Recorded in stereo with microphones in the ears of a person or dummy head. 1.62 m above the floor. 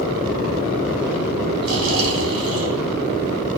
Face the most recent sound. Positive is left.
turn(degrees=-75)  # may be behind; listen again after turning